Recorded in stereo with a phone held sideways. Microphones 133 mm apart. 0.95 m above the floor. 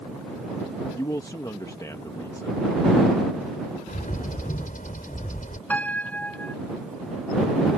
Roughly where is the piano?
Centre.